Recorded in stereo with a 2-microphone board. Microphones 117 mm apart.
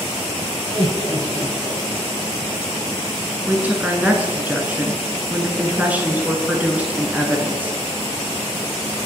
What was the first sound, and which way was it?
Laughter, 65° right (ahead or behind).